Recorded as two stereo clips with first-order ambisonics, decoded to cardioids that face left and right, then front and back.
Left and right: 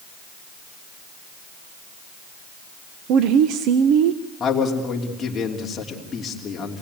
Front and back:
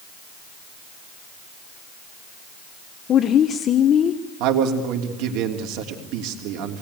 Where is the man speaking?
160° left, 3 m.